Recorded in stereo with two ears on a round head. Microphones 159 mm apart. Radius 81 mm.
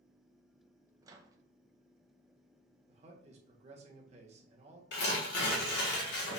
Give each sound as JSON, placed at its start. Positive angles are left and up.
{"t": 1.0, "sound": "a microwave", "side_deg": -20, "distance_m": 0.7}
{"t": 2.9, "sound": "a man speaking", "side_deg": -35, "distance_m": 1.0}
{"t": 4.9, "sound": "tearing paper", "side_deg": 60, "distance_m": 1.4}